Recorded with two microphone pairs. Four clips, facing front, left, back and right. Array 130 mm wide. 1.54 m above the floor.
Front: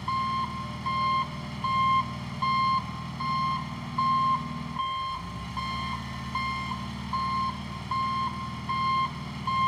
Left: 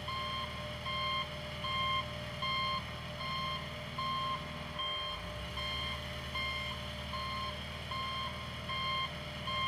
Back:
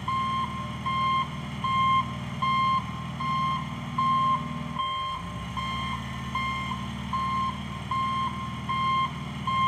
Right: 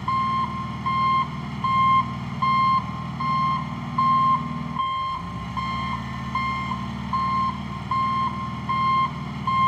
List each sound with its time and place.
0.0 s an engine running: 90° right